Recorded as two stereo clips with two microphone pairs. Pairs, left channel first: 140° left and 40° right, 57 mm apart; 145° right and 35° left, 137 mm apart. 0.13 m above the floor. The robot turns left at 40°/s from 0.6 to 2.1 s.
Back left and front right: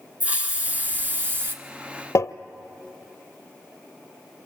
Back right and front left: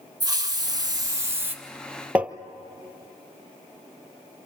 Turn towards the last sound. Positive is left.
turn(degrees=115)